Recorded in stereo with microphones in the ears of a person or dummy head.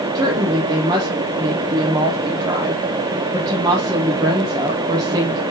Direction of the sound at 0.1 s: 20° right (ahead or behind).